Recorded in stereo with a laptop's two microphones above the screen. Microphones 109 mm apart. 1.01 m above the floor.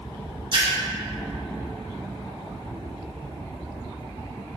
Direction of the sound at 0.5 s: 45° right (ahead or behind).